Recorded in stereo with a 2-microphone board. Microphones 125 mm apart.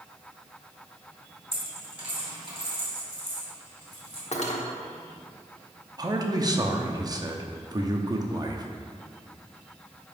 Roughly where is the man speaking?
Right.